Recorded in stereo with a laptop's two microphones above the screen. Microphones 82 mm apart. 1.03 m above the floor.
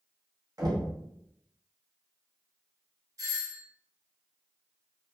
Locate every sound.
0.6 s knocking: 50° right (ahead or behind), 0.9 m
3.2 s a doorbell: 45° right (ahead or behind), 1.7 m